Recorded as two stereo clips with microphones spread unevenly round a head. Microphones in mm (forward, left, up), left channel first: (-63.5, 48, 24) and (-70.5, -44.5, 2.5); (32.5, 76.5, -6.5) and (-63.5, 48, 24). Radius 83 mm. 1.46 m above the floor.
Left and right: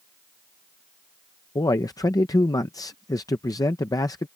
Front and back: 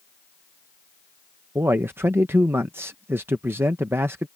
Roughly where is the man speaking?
Behind left.